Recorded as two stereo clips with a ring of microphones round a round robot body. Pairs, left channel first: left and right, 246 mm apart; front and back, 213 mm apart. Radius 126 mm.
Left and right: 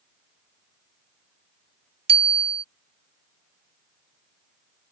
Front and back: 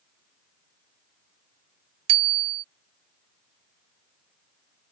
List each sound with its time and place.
2.1 s a bicycle bell: 160° right